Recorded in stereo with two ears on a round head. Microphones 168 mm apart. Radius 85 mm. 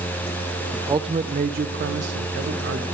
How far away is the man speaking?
About 0.7 m.